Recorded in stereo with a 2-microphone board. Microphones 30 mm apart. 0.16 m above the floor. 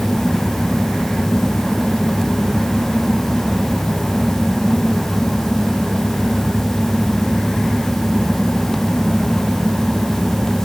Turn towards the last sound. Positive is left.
No sound to turn to.